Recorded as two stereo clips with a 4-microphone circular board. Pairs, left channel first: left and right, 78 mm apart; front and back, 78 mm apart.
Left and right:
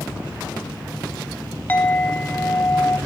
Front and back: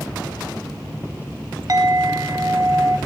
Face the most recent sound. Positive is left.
turn(degrees=150)